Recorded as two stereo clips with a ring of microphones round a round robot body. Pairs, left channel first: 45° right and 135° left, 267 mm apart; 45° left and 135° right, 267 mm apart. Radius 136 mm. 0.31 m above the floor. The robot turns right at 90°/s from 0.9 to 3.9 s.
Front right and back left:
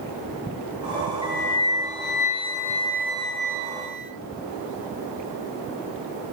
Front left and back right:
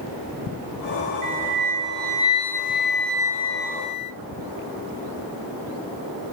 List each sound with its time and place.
1.2 s a flute: 115° right, 3 m; by 4.1 s 125° left, 3 m